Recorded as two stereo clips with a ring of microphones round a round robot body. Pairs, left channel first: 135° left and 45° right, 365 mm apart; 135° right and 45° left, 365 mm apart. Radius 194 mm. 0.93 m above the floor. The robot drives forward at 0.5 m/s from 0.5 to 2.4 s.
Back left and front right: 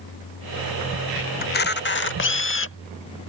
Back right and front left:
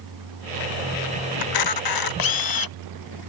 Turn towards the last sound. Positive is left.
turn(degrees=-165)